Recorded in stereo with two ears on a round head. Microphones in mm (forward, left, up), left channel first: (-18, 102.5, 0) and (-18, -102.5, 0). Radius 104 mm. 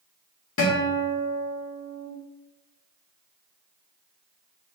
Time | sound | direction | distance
0.6 | a guitar | 60° left (ahead or behind) | 1.4 m